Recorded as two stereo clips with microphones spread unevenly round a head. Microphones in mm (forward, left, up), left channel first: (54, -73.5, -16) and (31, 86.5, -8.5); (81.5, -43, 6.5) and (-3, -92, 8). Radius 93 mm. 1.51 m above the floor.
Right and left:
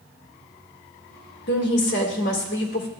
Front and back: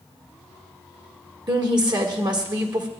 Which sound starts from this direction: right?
A woman speaking, at 1.5 s.